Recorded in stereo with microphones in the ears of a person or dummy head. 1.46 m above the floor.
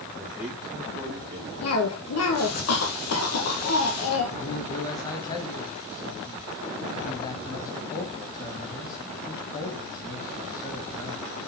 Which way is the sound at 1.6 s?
80° left.